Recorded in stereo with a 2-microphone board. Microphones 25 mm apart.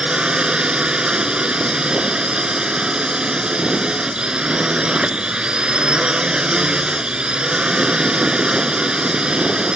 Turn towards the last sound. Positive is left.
turn(degrees=-40)  # may be behind; listen again after turning